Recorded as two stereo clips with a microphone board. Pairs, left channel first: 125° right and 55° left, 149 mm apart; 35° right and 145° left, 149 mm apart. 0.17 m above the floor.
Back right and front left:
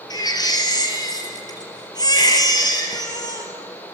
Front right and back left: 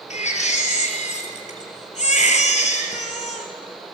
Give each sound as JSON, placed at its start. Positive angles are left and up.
{"t": 0.1, "sound": "a baby crying", "azimuth_deg": -65, "distance_m": 2.5}